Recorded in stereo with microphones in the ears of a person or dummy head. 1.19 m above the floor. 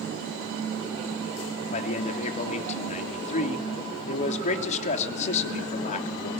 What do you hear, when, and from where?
1.7 s a man speaking: 40° left (ahead or behind), 3.5 m